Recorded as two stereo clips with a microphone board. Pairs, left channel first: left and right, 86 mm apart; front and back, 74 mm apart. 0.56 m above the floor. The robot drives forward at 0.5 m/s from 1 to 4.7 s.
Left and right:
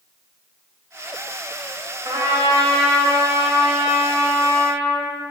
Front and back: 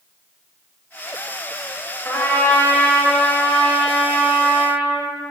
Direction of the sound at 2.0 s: 55° right.